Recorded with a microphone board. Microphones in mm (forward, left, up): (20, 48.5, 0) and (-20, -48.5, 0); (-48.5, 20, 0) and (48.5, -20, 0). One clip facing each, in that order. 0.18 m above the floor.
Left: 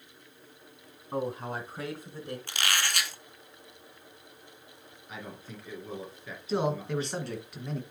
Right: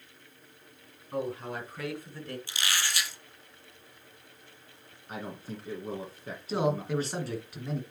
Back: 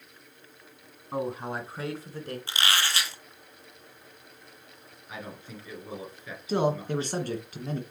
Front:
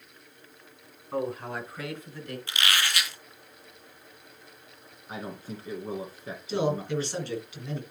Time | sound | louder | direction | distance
1.1 | a man speaking | left 1 dB, even | 95° left | 2 m
2.5 | a squeak | left 3 dB, even | 100° left | 1.0 m
5.1 | a man speaking | right 4 dB, front 4 dB | 70° right | 2.0 m
6.5 | a man speaking | right 1 dB, back 1 dB | 160° left | 1.8 m